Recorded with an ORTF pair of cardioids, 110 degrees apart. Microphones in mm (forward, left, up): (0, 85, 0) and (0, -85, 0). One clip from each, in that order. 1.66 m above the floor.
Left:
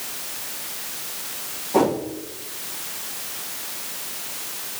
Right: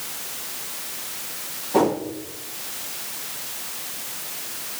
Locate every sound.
1.7 s a whoosh: straight ahead, 1.9 m